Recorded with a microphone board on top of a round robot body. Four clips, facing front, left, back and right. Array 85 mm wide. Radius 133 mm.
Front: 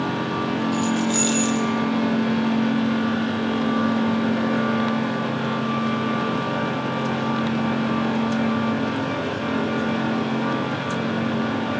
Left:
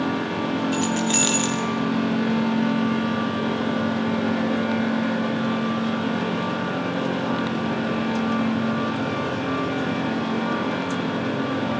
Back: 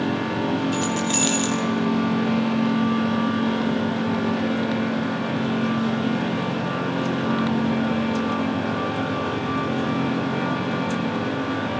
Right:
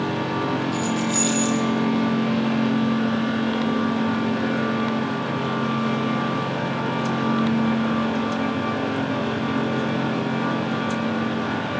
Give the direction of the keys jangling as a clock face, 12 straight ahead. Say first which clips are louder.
Left 1 dB, front 2 dB; 8 o'clock.